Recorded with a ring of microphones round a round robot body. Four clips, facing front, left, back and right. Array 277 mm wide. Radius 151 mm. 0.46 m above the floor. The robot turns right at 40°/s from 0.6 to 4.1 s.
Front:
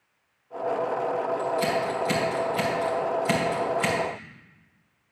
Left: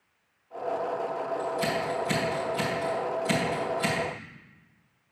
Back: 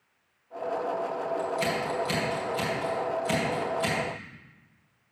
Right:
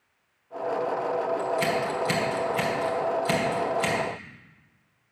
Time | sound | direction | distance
1.4 | scissors | 110° right | 2.5 m